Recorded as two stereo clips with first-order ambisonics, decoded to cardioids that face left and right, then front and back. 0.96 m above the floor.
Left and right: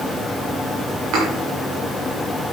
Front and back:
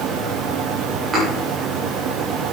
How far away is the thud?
About 7 m.